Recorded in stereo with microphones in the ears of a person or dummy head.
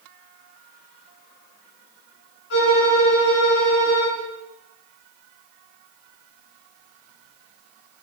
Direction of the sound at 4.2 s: 70° left (ahead or behind).